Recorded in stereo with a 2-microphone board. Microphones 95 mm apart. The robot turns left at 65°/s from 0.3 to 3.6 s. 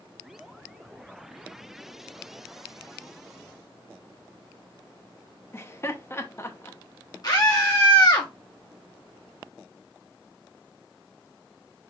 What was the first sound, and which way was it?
Laughter, 25° left (ahead or behind).